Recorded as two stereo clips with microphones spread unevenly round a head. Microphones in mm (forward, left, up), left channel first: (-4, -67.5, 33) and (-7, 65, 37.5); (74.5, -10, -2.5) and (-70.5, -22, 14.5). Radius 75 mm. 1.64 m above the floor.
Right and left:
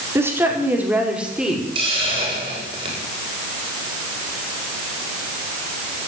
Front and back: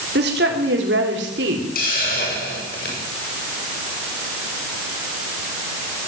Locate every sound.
0.1 s a woman speaking: 165° left, 4.5 m; by 1.6 s 175° left, 5 m
1.8 s a hiss: 40° left, 7.5 m